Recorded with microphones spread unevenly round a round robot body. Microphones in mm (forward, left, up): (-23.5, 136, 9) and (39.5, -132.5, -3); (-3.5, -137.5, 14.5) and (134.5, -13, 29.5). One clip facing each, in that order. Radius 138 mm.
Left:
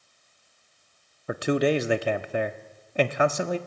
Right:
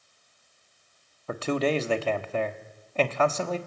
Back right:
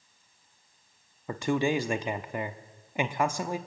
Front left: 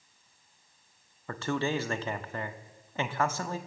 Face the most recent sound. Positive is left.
turn(degrees=170)